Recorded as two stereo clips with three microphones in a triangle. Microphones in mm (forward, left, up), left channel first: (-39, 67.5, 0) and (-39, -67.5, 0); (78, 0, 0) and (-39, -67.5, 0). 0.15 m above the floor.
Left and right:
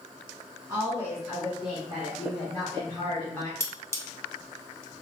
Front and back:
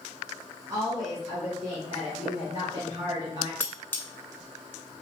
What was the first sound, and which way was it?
A woman speaking, 140° right.